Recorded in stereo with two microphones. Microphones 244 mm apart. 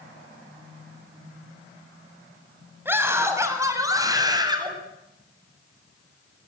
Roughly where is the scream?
Centre.